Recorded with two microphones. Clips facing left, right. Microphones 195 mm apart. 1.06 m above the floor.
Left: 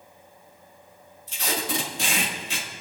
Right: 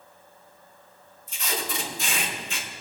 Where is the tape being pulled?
85° left, 1.6 m.